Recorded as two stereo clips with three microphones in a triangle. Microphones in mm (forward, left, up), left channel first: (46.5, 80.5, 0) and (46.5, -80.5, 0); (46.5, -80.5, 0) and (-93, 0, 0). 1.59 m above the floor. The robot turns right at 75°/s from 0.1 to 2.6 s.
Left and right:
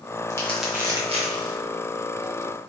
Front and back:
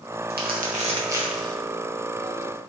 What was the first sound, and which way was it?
Crumpling, 155° left.